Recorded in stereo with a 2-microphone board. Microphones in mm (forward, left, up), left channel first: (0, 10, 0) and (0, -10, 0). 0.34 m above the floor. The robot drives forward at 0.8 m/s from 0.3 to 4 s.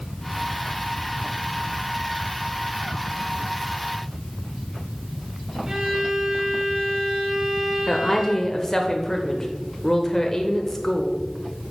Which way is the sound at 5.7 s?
40° right (ahead or behind).